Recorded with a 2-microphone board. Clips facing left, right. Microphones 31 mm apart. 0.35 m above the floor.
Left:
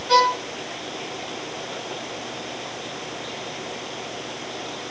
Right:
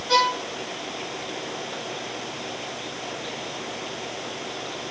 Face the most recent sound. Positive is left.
turn(degrees=25)  # may be behind; listen again after turning